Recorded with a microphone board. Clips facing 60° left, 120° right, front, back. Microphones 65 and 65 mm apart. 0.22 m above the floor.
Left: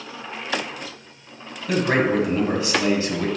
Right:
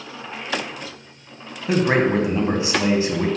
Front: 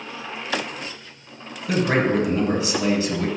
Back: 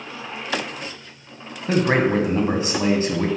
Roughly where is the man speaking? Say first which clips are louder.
Right 2 dB, back 2 dB; behind.